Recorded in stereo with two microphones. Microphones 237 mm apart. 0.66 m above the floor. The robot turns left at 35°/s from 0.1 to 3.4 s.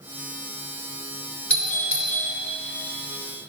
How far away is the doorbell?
About 4 m.